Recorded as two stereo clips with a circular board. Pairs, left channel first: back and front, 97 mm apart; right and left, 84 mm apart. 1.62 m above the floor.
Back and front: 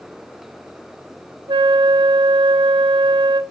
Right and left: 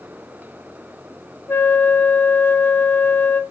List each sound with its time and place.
1.5 s a flute: 25° right, 0.6 m